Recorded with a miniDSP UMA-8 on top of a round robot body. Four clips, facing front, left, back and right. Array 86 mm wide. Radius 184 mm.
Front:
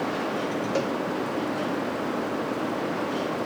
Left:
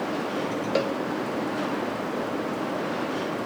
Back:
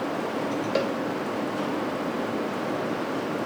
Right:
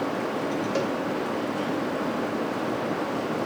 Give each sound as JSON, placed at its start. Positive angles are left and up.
{"t": 0.8, "sound": "a cowbell", "azimuth_deg": 130, "distance_m": 1.3}